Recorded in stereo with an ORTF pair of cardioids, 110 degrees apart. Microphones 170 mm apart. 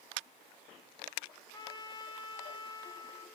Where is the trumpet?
25° left, 1.1 m.